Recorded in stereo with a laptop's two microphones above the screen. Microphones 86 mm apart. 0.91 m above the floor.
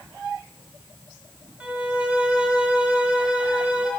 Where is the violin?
15° right (ahead or behind), 0.9 m.